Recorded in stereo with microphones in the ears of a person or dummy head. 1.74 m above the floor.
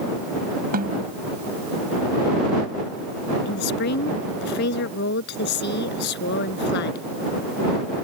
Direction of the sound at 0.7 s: 50° right (ahead or behind).